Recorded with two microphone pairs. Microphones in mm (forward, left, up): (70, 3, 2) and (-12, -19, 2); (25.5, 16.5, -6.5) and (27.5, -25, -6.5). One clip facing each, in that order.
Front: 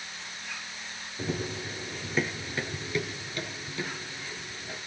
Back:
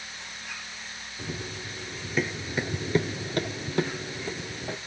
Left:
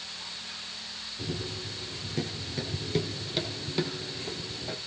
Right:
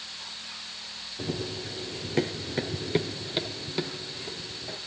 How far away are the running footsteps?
About 1.1 m.